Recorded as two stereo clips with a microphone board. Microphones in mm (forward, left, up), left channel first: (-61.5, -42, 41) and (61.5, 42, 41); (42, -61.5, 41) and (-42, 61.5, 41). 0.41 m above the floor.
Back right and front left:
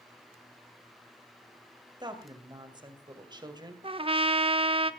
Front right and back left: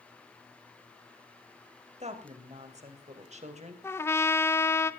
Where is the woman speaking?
90° left, 2.5 m.